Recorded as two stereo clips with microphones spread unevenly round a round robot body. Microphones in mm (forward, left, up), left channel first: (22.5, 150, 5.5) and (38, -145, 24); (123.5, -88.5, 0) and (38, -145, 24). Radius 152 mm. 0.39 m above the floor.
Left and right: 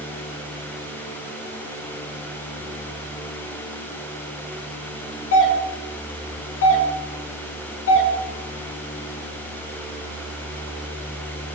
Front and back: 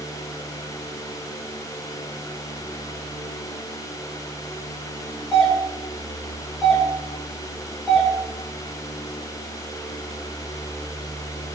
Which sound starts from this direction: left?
A doorbell, at 5.3 s.